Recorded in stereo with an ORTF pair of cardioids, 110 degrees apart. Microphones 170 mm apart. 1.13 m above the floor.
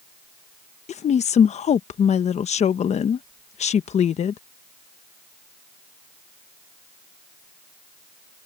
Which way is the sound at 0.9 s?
45° left.